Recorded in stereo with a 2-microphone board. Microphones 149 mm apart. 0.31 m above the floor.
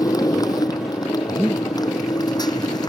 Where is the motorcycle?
25° left (ahead or behind).